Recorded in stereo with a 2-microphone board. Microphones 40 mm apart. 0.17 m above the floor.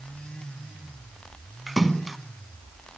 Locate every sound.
1.7 s a splash: 5° right (ahead or behind), 0.8 m